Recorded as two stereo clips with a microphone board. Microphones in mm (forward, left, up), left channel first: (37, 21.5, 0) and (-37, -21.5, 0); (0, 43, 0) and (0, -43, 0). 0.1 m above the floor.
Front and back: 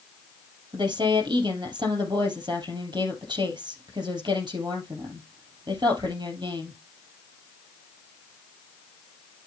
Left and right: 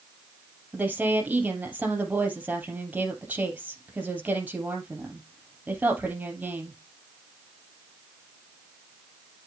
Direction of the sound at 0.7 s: 160° right.